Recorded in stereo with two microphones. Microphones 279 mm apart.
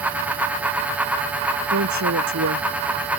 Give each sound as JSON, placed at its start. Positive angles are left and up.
{"t": 1.7, "sound": "a woman speaking", "side_deg": -75}